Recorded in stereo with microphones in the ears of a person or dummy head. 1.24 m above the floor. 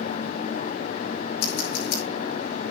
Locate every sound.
1.4 s scissors: 55° left (ahead or behind), 5 m